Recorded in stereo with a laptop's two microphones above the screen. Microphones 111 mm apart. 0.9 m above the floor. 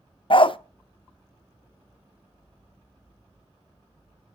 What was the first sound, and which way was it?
A dog barking, 50° left (ahead or behind).